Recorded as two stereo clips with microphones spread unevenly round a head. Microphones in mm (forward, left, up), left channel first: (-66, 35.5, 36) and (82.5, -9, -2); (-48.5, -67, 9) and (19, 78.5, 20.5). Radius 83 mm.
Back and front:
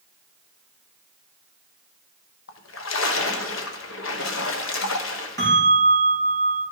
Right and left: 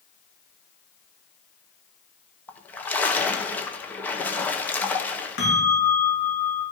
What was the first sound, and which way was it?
A splash, 165° left.